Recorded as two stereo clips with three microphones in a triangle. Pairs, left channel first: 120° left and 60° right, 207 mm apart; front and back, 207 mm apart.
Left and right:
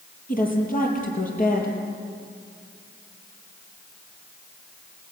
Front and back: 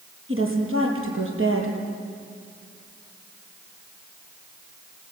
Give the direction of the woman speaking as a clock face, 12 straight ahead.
6 o'clock.